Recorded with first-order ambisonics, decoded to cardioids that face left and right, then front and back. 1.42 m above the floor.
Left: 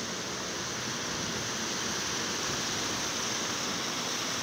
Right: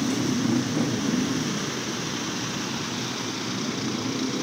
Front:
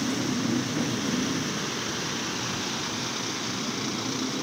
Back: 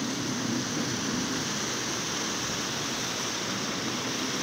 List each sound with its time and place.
0.0 s a motorcycle: 75° right